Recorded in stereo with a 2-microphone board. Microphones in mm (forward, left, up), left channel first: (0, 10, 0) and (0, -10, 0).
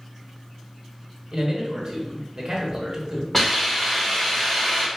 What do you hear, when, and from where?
1.3 s a man speaking: 40° right (ahead or behind), 1.4 m
3.3 s a hiss: 15° left (ahead or behind), 1.7 m